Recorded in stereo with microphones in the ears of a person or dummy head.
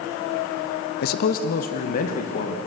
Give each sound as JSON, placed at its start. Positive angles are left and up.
{"t": 1.0, "sound": "a man speaking", "side_deg": 65, "distance_m": 0.9}